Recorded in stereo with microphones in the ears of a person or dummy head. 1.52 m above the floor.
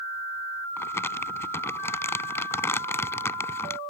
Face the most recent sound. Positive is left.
turn(degrees=15)  # may be behind; listen again after turning